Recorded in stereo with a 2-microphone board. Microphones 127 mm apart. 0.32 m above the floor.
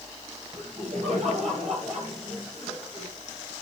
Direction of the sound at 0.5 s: 60° right (ahead or behind).